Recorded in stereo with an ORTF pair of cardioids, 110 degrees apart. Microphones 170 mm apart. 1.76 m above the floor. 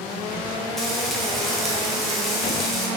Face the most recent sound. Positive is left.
turn(degrees=0)